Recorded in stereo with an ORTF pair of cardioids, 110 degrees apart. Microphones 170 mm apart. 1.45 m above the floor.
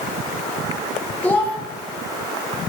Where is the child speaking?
10° left, 1.4 m.